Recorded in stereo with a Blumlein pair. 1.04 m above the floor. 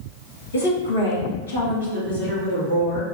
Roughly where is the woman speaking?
Left.